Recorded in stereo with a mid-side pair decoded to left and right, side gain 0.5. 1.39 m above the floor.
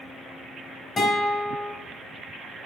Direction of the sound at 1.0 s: 30° left.